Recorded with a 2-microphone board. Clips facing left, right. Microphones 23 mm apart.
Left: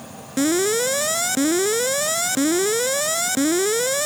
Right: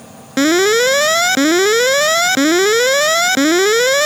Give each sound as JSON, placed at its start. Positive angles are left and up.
{"t": 0.4, "sound": "an alarm", "side_deg": -40}